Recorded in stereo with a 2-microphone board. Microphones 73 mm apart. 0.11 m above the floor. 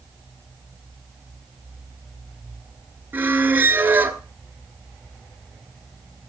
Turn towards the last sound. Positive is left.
turn(degrees=-30)  # may be behind; listen again after turning